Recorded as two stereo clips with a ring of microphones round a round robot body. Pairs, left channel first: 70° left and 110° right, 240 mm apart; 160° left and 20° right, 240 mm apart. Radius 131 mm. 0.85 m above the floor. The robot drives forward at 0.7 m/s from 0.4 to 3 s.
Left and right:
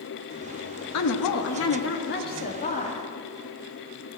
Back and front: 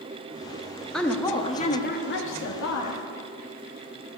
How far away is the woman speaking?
About 1.1 m.